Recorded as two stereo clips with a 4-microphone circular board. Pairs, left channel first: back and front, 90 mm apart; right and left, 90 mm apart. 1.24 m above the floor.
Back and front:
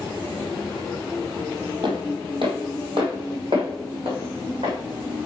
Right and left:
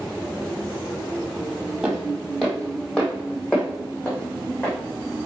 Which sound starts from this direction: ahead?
Footsteps, at 1.8 s.